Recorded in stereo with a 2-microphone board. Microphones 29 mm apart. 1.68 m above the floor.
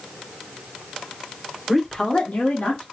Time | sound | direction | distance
1.7 | a woman speaking | centre (ahead or behind) | 1.1 m